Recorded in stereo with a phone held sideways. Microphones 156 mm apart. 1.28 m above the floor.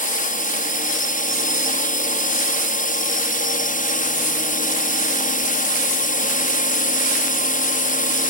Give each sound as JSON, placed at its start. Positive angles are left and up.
{"t": 0.0, "sound": "a drone", "side_deg": 60}